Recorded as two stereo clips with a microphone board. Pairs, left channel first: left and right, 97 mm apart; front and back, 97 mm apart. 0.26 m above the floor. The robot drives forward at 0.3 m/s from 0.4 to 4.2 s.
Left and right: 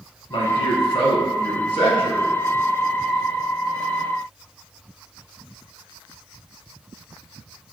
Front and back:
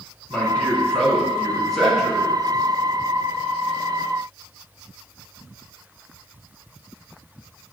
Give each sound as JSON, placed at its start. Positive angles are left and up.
{"t": 0.3, "sound": "a man speaking", "azimuth_deg": 75, "distance_m": 2.5}